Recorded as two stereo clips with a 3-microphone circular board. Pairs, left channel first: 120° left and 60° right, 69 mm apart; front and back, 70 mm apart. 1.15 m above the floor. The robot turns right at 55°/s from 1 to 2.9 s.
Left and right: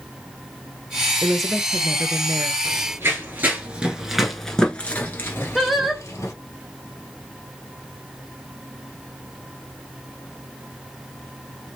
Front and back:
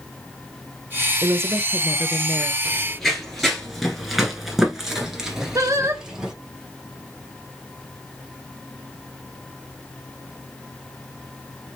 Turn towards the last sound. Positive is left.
turn(degrees=-145)